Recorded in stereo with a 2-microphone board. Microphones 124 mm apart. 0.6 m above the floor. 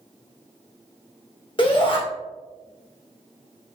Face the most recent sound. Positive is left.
turn(degrees=40)  # may be behind; listen again after turning